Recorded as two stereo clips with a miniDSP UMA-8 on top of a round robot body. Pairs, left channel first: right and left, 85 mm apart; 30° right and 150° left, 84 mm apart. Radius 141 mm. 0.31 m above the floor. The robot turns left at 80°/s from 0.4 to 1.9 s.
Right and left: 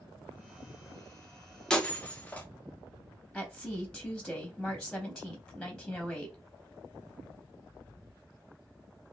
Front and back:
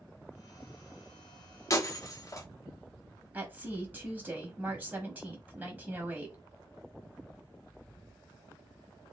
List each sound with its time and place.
1.7 s breaking glass: 10° right, 0.8 m; by 2.5 s 30° right, 0.8 m
3.3 s a woman speaking: 165° right, 1.0 m